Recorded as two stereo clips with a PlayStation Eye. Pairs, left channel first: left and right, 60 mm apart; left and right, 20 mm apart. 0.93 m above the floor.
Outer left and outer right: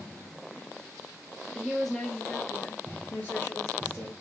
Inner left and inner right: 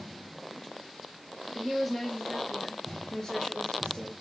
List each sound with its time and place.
1.5 s a woman speaking: 10° right (ahead or behind), 0.7 m; by 4.1 s 50° left (ahead or behind), 1.7 m